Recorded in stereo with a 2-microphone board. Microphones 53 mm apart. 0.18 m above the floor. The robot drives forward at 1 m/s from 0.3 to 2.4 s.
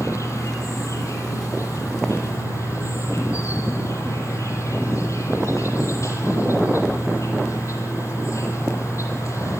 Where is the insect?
75° left (ahead or behind), 9 m; by 9.6 s 70° left (ahead or behind), 9 m.